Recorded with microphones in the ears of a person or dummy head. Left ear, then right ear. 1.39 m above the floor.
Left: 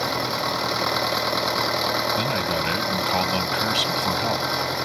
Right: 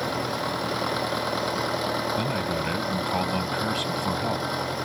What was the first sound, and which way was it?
An engine running, 25° left (ahead or behind).